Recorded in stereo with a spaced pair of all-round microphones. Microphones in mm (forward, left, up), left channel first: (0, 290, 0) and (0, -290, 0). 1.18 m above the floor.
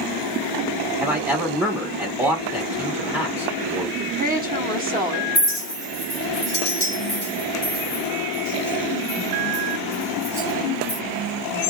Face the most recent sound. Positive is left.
turn(degrees=45)  # may be behind; listen again after turning